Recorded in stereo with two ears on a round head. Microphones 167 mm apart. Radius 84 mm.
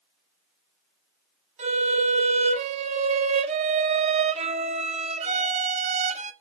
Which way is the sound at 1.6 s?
35° right (ahead or behind).